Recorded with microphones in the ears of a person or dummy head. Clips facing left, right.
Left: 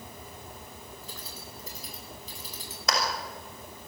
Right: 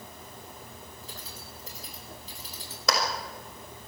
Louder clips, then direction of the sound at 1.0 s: Left 1 dB; 85° left.